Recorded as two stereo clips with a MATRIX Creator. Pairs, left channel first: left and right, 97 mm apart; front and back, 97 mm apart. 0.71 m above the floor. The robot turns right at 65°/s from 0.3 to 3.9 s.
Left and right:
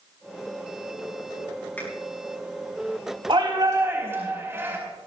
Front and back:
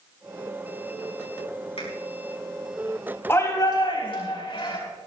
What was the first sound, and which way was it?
A finger snap, 15° left.